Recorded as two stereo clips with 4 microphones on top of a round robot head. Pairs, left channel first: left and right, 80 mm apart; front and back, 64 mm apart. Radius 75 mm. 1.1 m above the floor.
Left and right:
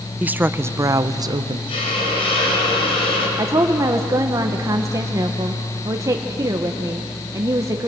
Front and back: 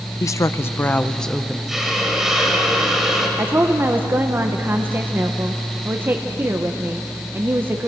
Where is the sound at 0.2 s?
20° right, 0.9 m; by 1.6 s 95° right, 0.8 m.